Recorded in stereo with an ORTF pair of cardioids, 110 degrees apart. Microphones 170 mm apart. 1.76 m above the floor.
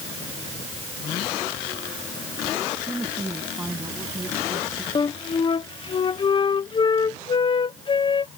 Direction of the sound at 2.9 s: 10° right.